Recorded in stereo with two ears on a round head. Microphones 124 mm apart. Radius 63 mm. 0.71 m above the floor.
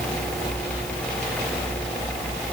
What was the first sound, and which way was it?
Only background noise.